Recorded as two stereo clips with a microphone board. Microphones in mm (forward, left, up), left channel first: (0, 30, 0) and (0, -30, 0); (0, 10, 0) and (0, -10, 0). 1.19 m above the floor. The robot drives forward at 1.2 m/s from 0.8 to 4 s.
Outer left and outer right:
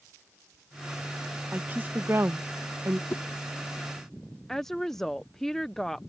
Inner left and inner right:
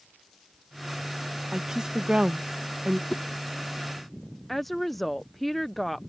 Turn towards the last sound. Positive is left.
turn(degrees=5)  # may be behind; listen again after turning